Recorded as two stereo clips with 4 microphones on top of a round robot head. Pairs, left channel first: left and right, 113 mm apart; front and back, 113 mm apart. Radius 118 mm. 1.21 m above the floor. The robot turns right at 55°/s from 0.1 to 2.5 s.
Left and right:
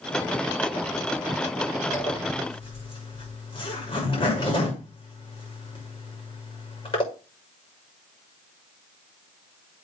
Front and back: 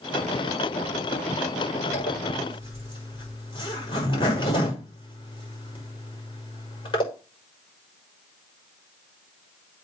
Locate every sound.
1.9 s a zipper: 15° left, 6.5 m; by 7.0 s 45° left, 6.5 m